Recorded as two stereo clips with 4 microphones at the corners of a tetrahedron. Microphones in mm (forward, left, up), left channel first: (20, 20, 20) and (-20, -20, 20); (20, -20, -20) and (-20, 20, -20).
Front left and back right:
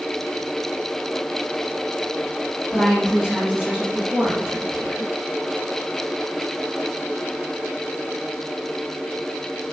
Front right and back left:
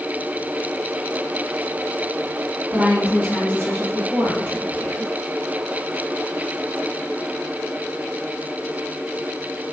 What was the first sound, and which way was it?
A woman speaking, 135° left.